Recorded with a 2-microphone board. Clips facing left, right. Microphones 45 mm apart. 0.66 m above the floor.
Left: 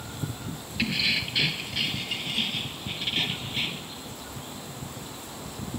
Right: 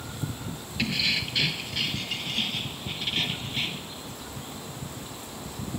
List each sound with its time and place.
0.8 s keys jangling: 10° left (ahead or behind); by 3.9 s 5° left (ahead or behind)